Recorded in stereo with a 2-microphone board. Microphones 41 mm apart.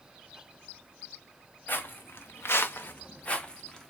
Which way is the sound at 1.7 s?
60° left (ahead or behind).